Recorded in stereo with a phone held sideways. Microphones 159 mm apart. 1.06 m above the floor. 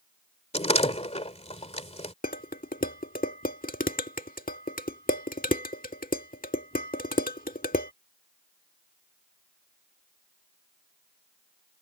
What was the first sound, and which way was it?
A door slam, 40° left (ahead or behind).